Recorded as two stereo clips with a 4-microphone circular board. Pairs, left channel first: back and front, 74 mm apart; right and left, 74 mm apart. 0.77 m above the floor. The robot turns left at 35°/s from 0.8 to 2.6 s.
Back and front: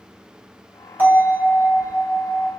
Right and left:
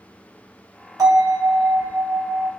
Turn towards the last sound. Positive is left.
turn(degrees=10)